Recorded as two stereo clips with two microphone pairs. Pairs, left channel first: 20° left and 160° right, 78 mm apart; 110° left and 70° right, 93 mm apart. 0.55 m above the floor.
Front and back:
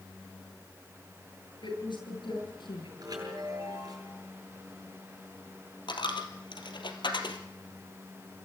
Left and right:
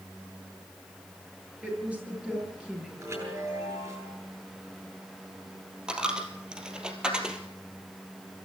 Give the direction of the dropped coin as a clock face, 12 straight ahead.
12 o'clock.